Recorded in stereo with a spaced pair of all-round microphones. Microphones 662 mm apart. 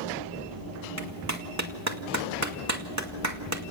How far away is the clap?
About 2 m.